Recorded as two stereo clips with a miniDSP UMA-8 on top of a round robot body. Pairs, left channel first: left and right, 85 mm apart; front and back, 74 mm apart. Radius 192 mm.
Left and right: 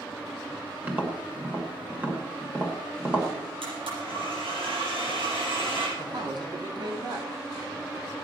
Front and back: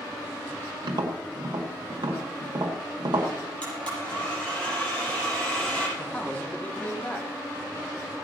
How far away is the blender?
About 6 m.